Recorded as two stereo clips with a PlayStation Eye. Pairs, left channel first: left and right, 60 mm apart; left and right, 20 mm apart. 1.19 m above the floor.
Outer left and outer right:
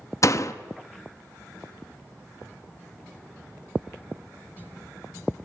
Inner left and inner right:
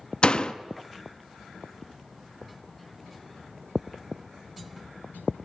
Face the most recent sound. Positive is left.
turn(degrees=55)  # may be behind; listen again after turning